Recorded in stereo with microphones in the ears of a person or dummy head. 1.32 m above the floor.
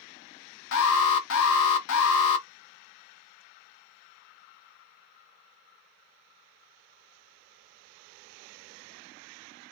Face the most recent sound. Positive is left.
turn(degrees=75)  # may be behind; listen again after turning